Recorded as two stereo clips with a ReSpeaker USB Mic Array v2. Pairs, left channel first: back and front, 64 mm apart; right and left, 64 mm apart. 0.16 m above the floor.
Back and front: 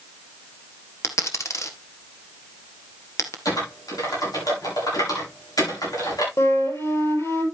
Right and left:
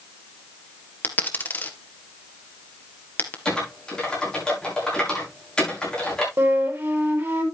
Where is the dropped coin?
145° right, 1.6 m.